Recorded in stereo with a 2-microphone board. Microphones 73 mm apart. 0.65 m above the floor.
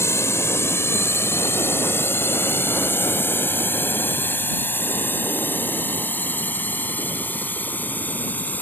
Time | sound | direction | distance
0.0 | a drone | 40° left (ahead or behind) | ?